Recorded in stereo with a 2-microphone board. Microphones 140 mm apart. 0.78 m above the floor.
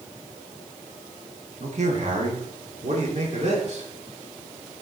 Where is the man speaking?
55° right (ahead or behind), 1.3 m.